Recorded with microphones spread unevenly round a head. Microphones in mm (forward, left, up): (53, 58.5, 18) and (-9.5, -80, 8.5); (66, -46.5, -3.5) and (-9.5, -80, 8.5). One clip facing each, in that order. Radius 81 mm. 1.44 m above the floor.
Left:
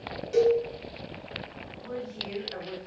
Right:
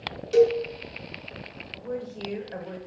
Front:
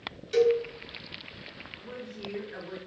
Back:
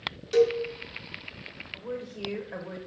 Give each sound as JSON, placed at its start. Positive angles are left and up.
{"t": 0.3, "sound": "a cowbell", "azimuth_deg": -85, "distance_m": 0.7}
{"t": 1.7, "sound": "a woman speaking", "azimuth_deg": -170, "distance_m": 0.7}